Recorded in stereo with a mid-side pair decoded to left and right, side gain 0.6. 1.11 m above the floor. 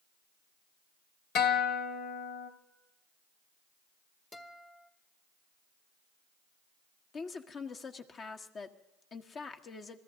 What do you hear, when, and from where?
1.4 s a guitar: 65° left, 2.0 m
4.3 s a guitar: 30° left, 1.7 m
7.1 s a woman speaking: 40° left, 1.5 m